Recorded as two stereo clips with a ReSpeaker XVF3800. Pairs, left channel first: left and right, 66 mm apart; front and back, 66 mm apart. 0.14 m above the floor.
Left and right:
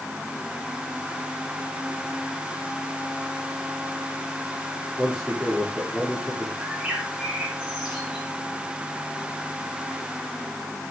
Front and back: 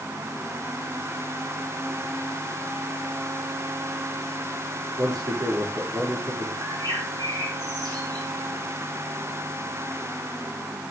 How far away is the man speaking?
About 9.5 m.